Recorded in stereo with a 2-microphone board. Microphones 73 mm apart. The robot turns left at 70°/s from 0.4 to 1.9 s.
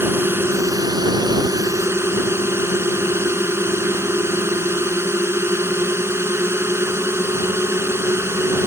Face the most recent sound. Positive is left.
turn(degrees=-140)